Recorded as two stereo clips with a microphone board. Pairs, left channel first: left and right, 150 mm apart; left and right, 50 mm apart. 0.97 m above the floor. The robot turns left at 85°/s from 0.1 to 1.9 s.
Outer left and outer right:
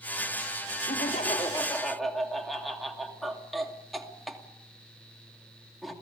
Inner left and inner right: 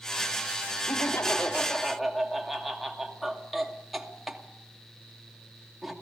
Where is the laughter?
90° left, 2.5 m; by 5.9 s straight ahead, 2.5 m.